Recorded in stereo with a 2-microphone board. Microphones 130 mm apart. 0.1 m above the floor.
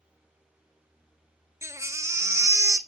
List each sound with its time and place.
1.6 s a baby crying: 25° right (ahead or behind), 0.6 m